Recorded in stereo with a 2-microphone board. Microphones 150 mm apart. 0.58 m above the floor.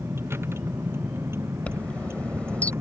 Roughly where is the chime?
Centre.